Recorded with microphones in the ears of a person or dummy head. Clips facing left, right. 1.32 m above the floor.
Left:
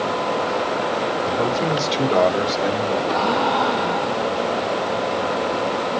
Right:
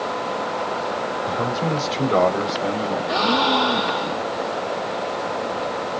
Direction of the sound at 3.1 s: 40° right (ahead or behind).